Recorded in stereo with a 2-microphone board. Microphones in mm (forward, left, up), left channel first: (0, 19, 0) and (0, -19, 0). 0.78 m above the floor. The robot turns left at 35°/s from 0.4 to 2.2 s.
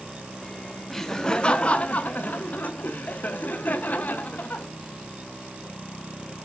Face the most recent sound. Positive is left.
turn(degrees=125)